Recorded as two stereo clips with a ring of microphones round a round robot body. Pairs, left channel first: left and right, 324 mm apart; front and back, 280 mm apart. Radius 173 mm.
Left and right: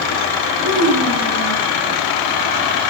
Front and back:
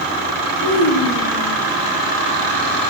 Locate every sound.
0.6 s a child speaking: 50° right, 6 m; by 1.6 s 55° right, 6.5 m